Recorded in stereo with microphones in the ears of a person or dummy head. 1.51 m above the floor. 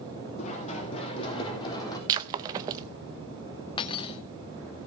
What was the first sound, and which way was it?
Running footsteps, 35° left (ahead or behind).